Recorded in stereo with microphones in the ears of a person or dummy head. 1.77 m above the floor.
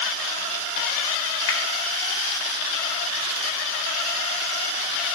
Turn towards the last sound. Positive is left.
turn(degrees=60)  # may be behind; listen again after turning